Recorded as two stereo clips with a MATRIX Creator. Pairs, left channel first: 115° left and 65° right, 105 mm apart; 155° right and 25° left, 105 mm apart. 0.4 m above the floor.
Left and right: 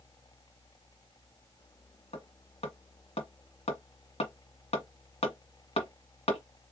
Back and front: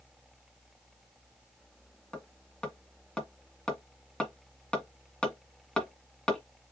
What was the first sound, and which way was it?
Hammering, 120° left.